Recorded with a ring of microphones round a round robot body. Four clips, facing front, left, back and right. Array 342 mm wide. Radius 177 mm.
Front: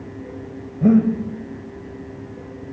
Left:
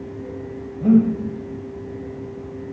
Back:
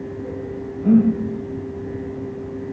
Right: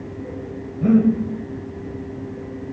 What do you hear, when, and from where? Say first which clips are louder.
0.8 s breathing: even, even; 15° right, 1.8 m